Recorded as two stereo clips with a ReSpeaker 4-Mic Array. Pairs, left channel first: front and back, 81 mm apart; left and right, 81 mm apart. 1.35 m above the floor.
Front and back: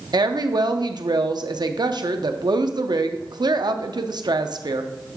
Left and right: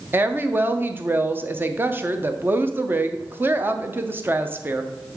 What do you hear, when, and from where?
0.1 s a woman speaking: 155° right, 0.6 m